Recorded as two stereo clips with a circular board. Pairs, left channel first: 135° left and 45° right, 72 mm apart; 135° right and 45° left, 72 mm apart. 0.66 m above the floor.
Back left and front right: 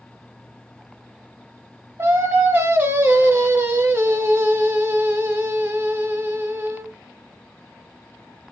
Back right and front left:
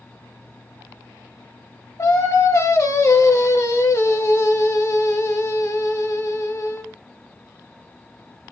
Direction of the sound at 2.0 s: 100° right.